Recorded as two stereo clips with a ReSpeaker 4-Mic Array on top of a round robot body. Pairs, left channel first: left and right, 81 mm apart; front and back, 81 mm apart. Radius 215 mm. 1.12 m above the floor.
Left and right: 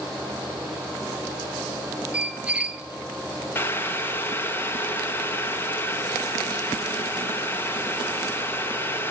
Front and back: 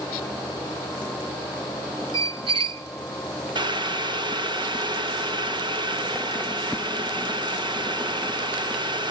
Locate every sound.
2.1 s a squeak: 165° right, 0.8 m
3.5 s boiling: 155° left, 1.8 m